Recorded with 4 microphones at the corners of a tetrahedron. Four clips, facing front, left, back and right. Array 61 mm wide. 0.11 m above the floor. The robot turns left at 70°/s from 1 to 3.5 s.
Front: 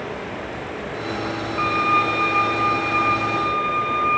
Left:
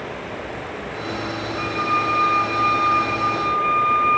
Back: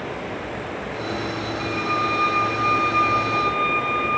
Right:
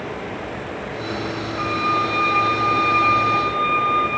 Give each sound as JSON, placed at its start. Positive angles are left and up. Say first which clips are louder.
{"t": 1.6, "sound": "a violin", "louder": "right 1 dB, front 6 dB", "azimuth_deg": 0, "distance_m": 6.5}